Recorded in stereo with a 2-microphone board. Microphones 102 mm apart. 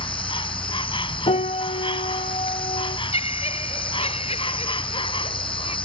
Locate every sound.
0.0 s an insect: 60° left (ahead or behind)
1.3 s a piano: 80° left
3.1 s laughter: 85° left